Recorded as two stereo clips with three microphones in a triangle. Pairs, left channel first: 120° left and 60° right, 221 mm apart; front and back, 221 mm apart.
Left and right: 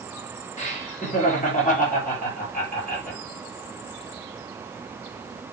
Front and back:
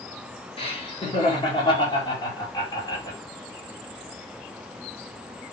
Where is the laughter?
65° left, 4.5 m; by 3.2 s 70° left, 5.5 m.